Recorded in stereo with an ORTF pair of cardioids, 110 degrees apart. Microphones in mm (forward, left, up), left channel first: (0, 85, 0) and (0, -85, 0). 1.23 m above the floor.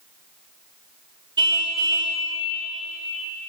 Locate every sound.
1.4 s a car horn: 25° right, 2.5 m